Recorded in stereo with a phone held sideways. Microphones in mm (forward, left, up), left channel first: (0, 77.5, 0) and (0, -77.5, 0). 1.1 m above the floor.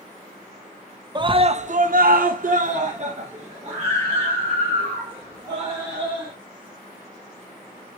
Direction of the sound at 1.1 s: 30° right (ahead or behind).